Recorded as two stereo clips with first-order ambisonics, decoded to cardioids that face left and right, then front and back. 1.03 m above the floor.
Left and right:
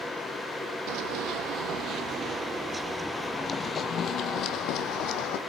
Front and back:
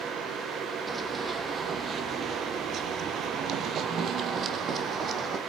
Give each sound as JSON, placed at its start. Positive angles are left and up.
{"t": 0.9, "sound": "running footsteps", "azimuth_deg": -105, "distance_m": 2.0}